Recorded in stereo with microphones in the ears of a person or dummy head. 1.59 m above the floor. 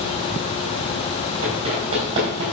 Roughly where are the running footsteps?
Right.